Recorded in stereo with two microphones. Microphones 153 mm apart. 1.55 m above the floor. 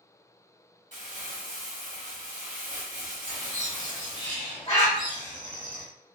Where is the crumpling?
55° right (ahead or behind), 0.9 m.